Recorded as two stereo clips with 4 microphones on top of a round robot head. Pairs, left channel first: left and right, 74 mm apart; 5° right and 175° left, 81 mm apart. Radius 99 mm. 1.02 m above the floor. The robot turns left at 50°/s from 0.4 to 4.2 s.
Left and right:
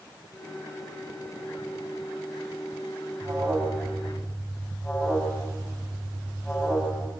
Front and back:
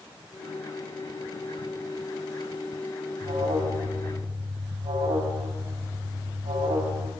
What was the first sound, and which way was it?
An alarm, 140° right.